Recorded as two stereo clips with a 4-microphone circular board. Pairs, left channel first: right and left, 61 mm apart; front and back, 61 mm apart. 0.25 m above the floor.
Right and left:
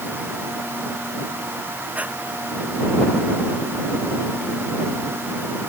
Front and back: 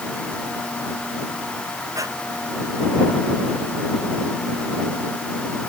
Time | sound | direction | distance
1.9 | breathing | 155° left | ?